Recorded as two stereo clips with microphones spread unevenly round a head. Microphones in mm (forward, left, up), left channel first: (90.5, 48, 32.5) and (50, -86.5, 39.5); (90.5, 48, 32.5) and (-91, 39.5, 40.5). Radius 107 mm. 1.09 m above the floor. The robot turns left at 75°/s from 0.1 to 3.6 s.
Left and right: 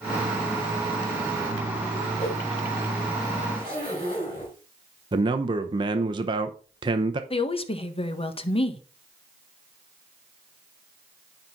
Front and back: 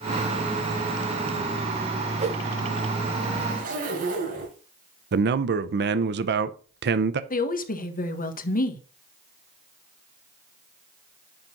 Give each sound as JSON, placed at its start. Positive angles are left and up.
{"t": 2.2, "sound": "a whoosh", "azimuth_deg": 135, "distance_m": 1.9}
{"t": 3.5, "sound": "a zipper", "azimuth_deg": 150, "distance_m": 5.5}
{"t": 5.1, "sound": "a man speaking", "azimuth_deg": -165, "distance_m": 0.7}
{"t": 7.3, "sound": "a woman speaking", "azimuth_deg": 35, "distance_m": 1.5}